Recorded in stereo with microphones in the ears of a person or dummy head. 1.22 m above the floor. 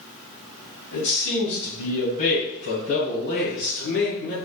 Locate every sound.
0.9 s a man speaking: 60° left (ahead or behind), 2 m; by 4.3 s 65° left (ahead or behind), 4 m